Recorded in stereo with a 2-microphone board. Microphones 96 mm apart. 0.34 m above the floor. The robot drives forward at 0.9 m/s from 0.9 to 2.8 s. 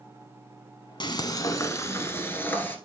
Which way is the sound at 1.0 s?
50° left (ahead or behind).